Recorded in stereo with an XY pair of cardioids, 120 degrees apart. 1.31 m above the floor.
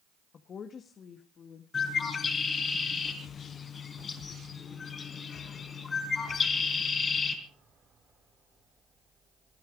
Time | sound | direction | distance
0.3 | a woman speaking | 40° left | 1.5 m
1.7 | a bird | 35° left | 4 m